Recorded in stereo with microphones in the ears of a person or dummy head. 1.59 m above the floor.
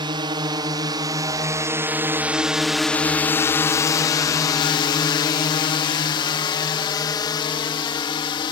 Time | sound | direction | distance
0.0 | a drone | 25° right (ahead or behind) | ?